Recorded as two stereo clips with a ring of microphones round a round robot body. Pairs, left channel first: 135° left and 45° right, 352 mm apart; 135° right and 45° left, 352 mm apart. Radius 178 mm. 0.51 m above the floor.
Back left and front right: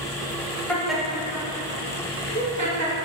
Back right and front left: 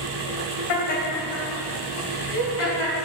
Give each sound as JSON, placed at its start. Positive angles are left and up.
{"t": 0.7, "sound": "laughter", "azimuth_deg": -140, "distance_m": 2.5}